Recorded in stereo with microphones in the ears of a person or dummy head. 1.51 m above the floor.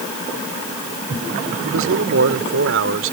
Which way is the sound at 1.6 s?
85° right.